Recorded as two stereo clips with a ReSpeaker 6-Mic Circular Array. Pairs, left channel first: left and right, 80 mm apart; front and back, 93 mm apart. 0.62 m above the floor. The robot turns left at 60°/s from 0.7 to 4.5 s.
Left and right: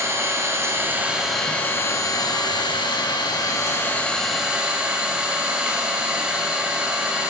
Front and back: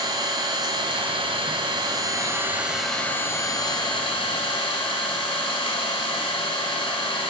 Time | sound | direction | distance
0.0 | an engine running | 145° right | 2 m